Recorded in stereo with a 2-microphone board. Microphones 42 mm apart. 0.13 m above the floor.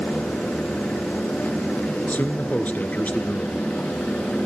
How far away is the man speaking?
About 1.5 m.